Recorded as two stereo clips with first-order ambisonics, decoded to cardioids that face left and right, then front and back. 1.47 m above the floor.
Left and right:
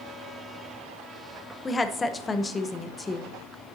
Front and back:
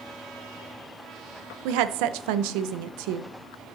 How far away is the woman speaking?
About 0.7 m.